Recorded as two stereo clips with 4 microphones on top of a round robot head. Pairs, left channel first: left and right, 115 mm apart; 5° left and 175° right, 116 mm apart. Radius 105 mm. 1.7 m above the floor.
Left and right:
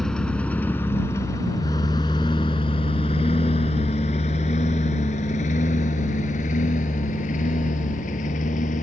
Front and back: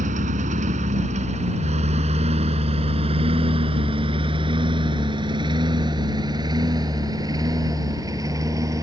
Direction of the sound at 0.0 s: 175° left.